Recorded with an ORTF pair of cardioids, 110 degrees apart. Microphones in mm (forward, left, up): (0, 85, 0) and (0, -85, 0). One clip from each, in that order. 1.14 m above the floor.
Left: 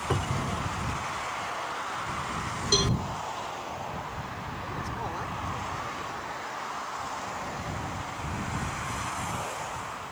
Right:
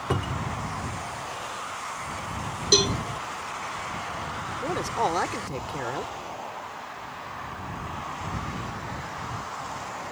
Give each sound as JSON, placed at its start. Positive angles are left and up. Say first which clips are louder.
{"t": 0.1, "sound": "a cupboard door", "louder": "right 1 dB", "azimuth_deg": -15}
{"t": 2.7, "sound": "a cowbell", "louder": "right 5 dB", "azimuth_deg": -40}
{"t": 4.6, "sound": "a man speaking", "louder": "right 10 dB", "azimuth_deg": -70}